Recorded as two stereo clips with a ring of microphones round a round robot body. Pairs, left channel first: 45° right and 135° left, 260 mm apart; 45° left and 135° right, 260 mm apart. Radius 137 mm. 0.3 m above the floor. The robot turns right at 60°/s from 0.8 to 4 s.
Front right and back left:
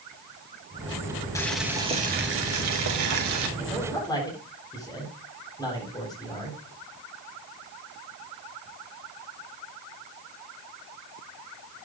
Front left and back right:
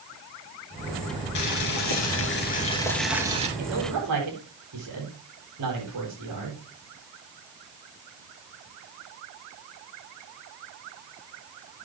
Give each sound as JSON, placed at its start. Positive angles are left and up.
{"t": 1.4, "sound": "boiling", "azimuth_deg": 35, "distance_m": 3.0}
{"t": 3.6, "sound": "a man speaking", "azimuth_deg": -145, "distance_m": 7.5}